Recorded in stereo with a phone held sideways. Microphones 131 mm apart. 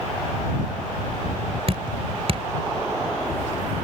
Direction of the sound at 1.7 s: 50° right (ahead or behind).